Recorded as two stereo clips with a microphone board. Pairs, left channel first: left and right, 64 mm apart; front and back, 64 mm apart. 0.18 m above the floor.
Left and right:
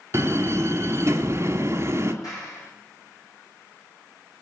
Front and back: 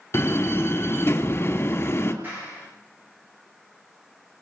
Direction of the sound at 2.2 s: 120° left.